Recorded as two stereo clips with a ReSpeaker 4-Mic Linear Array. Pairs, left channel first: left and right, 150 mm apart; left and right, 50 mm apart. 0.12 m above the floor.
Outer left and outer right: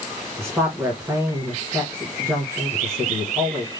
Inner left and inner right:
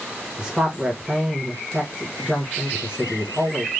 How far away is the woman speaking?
About 1.5 m.